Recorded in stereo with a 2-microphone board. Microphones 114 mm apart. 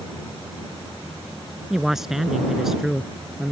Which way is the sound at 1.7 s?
5° right (ahead or behind).